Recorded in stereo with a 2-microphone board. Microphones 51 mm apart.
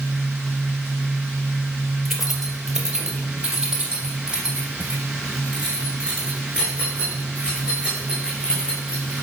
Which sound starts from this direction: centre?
Keys jangling, at 2.0 s.